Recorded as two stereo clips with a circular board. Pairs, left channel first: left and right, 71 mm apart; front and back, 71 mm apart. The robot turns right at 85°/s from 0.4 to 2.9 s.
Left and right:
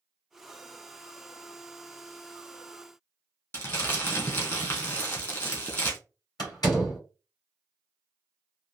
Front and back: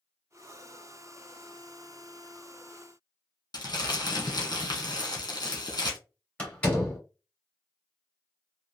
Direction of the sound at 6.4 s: 70° left.